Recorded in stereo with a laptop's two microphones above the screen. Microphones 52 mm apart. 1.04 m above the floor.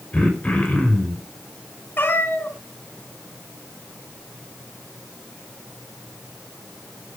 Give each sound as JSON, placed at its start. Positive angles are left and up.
{"t": 0.1, "sound": "throat clearing", "side_deg": 25, "distance_m": 5.0}
{"t": 2.0, "sound": "a cat meowing", "side_deg": 45, "distance_m": 2.5}